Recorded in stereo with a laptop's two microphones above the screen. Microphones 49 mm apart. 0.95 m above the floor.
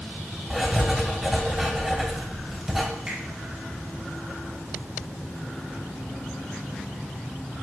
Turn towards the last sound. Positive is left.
turn(degrees=-25)  # may be behind; listen again after turning